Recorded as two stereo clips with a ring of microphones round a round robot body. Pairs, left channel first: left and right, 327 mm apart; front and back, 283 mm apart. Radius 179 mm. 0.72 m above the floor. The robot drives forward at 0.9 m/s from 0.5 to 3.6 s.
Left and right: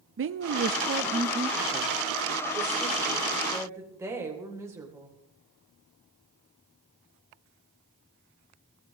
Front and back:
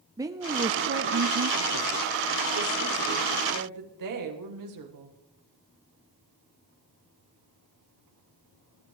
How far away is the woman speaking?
About 0.8 m.